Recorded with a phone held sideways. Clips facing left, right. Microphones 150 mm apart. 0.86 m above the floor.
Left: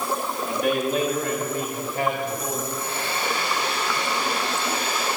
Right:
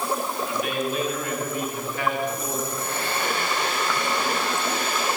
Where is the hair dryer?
50° right (ahead or behind), 4 m.